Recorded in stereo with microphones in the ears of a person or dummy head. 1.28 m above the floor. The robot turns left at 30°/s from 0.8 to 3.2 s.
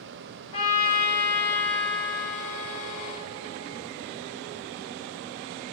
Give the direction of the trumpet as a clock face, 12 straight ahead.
11 o'clock.